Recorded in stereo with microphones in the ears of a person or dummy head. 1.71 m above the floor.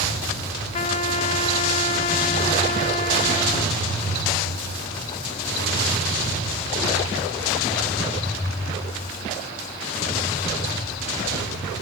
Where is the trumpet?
35° left (ahead or behind), 1.2 m.